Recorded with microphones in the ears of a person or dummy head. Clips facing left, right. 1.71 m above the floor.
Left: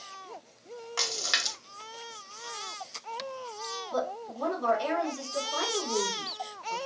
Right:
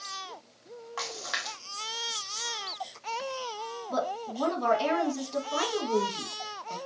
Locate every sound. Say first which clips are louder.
1.0 s a splash: right 1 dB; 35° left (ahead or behind), 1.1 m
3.9 s a woman speaking: right 1 dB; 75° right (ahead or behind), 1.8 m